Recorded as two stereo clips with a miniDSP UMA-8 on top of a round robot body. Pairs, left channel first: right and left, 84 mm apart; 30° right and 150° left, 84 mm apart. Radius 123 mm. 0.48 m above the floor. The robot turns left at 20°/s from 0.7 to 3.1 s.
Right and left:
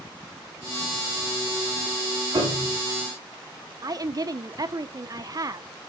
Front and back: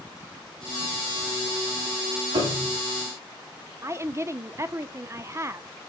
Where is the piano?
135° left, 5 m; by 2.8 s 125° left, 5 m.